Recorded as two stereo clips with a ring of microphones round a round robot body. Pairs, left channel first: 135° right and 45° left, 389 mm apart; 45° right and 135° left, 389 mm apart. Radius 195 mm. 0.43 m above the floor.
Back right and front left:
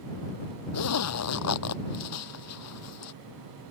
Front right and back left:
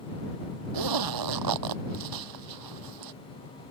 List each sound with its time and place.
0.7 s a zipper: 175° left